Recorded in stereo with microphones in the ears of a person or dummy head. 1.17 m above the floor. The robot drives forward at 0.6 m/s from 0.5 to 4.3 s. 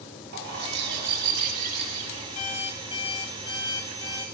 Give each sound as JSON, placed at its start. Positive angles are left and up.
{"t": 0.3, "sound": "a bird", "side_deg": -65, "distance_m": 3.0}
{"t": 2.4, "sound": "an alarm clock", "side_deg": 35, "distance_m": 1.4}